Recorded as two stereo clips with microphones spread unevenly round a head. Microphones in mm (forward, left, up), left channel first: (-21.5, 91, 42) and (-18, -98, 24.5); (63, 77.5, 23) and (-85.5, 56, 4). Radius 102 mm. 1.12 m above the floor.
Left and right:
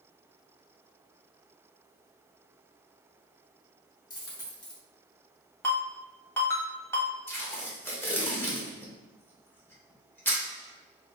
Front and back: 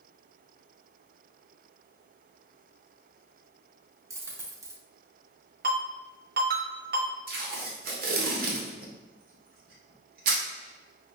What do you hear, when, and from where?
4.1 s a dropped coin: 125° left, 0.8 m
5.6 s a ringtone: 170° left, 1.3 m
7.3 s tape being pulled: 170° left, 0.9 m